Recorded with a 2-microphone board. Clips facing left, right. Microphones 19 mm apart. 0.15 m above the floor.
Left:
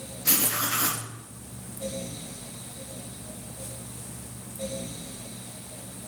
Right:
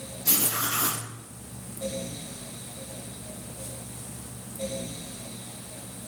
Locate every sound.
0.2 s writing: 65° left (ahead or behind), 2 m